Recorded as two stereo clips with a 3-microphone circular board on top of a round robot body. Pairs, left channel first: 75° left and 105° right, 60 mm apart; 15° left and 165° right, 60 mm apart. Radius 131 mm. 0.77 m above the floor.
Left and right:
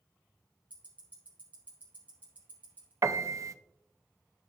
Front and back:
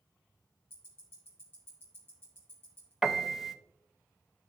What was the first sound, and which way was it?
Ticking, 40° right.